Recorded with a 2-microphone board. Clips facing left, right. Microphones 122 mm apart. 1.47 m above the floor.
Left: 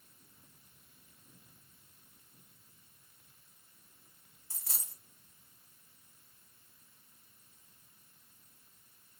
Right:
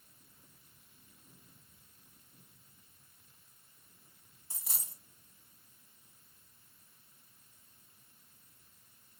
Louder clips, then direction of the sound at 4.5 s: Right 1 dB; 20° right (ahead or behind).